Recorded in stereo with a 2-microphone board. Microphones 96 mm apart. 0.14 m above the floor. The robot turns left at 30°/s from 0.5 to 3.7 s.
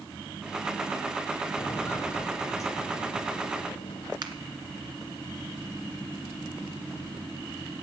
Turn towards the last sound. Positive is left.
turn(degrees=-50)  # may be behind; listen again after turning